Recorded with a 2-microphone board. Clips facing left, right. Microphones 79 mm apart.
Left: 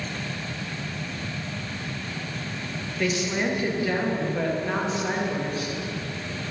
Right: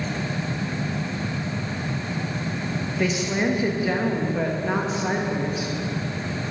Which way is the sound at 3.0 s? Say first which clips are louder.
Right 1 dB; 15° right (ahead or behind).